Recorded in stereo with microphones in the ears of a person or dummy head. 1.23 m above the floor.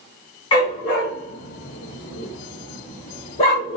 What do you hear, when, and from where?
0.5 s a dog barking: 35° left (ahead or behind), 1.2 m; by 3.8 s 30° left (ahead or behind), 1.6 m